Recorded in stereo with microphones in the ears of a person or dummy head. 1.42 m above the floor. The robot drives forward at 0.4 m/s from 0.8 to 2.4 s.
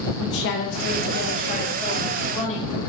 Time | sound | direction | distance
0.2 | a woman speaking | 65° left (ahead or behind) | 0.7 m